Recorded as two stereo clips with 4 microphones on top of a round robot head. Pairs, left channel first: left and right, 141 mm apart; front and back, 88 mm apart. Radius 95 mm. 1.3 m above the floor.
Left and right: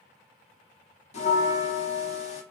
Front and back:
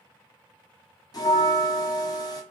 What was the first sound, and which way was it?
A bell, 50° left.